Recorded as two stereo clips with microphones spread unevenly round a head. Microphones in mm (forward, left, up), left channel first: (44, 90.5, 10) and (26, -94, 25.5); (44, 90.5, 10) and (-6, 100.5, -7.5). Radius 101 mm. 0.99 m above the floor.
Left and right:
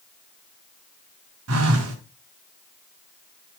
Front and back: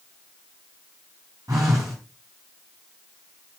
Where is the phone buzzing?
115° right, 3 m.